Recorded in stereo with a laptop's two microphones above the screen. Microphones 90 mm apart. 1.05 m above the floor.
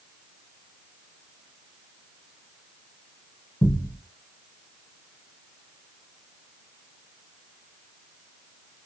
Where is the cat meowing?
No cat meowing in this recording.